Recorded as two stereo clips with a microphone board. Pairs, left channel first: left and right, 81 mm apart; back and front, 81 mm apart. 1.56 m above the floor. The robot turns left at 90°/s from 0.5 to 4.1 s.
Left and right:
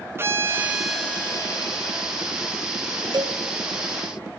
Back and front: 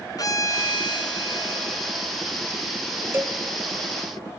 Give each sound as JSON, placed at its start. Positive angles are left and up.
{"t": 0.2, "sound": "a violin", "azimuth_deg": -145, "distance_m": 3.0}
{"t": 3.1, "sound": "a cowbell", "azimuth_deg": -60, "distance_m": 1.2}